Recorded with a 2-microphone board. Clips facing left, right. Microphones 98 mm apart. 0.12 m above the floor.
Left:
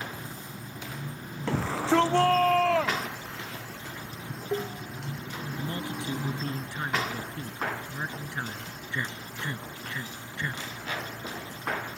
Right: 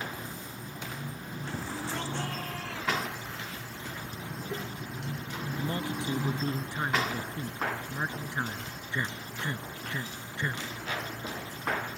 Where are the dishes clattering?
35° left (ahead or behind).